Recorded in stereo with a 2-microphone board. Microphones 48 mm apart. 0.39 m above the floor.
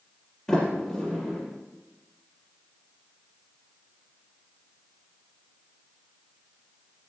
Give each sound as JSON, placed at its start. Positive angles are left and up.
{"t": 0.5, "sound": "a sliding door", "side_deg": 10, "distance_m": 5.0}